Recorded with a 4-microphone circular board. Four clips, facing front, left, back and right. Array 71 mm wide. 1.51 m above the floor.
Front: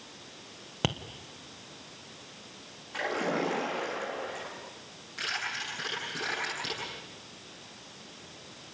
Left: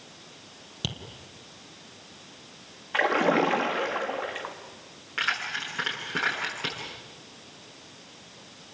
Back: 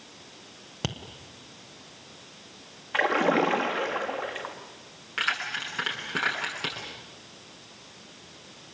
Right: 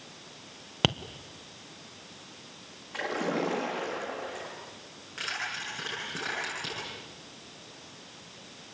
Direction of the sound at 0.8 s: 75° right.